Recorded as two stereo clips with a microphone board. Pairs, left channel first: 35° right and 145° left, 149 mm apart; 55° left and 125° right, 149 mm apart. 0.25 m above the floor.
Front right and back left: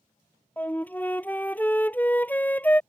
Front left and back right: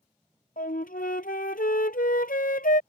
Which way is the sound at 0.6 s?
45° left.